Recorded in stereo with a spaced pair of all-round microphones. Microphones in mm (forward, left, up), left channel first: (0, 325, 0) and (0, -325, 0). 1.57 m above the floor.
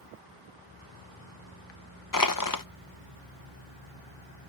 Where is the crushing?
30° left (ahead or behind).